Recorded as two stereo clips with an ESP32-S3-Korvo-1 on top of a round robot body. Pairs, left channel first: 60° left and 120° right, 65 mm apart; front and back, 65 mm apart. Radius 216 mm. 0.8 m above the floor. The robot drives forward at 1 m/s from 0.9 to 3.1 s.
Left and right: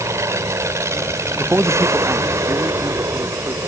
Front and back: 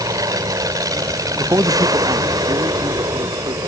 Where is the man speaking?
175° right; by 3.6 s straight behind.